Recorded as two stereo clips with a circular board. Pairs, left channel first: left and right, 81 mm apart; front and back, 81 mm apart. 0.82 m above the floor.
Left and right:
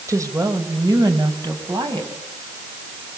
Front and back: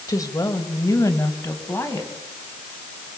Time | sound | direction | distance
0.1 | a woman speaking | 40° right | 3.5 m